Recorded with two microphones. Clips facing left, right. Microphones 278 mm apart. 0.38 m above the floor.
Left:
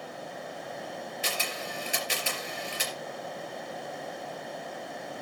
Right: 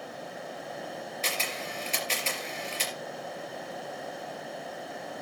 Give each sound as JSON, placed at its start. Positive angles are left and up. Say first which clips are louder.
{"t": 1.2, "sound": "a camera shutter", "louder": "even", "side_deg": 10, "distance_m": 3.5}